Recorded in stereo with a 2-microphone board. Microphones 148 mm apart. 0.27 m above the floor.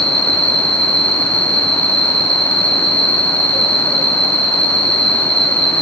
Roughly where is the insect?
Left.